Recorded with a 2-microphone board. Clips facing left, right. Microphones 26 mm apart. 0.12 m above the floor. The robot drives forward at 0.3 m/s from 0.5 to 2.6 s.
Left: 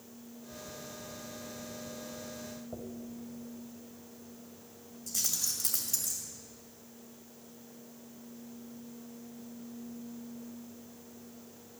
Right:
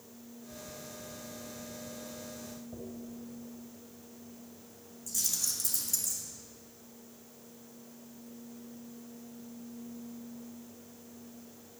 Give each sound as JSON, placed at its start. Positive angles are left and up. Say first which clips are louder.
{"t": 2.7, "sound": "a dropped coin", "louder": "left 1 dB", "side_deg": 80, "distance_m": 2.5}
{"t": 5.1, "sound": "keys jangling", "louder": "even", "side_deg": 15, "distance_m": 2.0}